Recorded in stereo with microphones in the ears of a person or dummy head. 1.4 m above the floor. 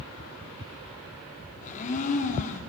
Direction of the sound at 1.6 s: 35° left (ahead or behind).